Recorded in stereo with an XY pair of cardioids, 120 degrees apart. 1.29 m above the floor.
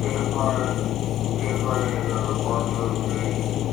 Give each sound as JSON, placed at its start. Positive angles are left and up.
{"t": 0.0, "sound": "a vehicle", "azimuth_deg": 60}